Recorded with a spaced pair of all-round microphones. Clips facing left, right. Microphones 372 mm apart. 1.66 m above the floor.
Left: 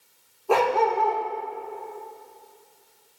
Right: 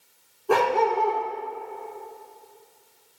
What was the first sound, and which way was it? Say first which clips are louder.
A dog barking: even; 25° right (ahead or behind).